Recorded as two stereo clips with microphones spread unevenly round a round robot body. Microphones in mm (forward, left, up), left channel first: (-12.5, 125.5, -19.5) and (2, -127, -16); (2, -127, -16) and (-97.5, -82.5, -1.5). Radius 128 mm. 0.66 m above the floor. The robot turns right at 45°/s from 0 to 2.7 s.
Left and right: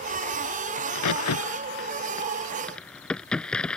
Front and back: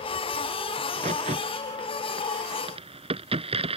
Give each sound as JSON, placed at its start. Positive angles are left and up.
{"t": 0.8, "sound": "a crack", "azimuth_deg": 95}